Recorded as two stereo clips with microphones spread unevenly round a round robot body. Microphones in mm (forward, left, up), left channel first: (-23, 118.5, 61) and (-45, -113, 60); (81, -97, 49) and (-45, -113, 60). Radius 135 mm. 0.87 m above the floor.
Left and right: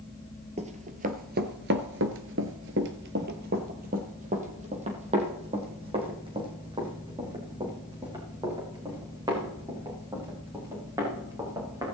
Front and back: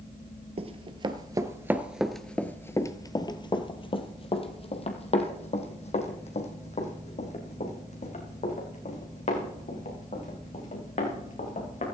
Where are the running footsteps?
155° right, 1.3 m; by 11.8 s 20° right, 6.5 m.